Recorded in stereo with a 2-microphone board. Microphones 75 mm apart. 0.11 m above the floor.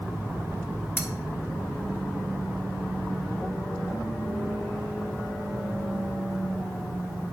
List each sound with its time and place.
1.0 s cutlery clinking: 30° left (ahead or behind), 0.8 m